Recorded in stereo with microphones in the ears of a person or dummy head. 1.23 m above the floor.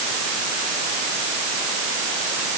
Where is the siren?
I don't hear a siren.